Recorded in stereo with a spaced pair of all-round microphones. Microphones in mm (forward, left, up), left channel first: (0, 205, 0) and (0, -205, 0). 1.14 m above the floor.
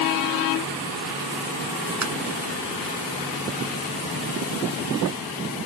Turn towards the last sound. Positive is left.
turn(degrees=-45)  # may be behind; listen again after turning